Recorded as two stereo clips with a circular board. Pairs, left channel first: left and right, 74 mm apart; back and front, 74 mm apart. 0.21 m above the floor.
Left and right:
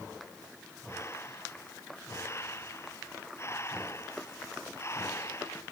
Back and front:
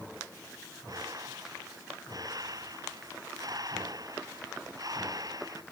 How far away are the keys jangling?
No keys jangling in this recording.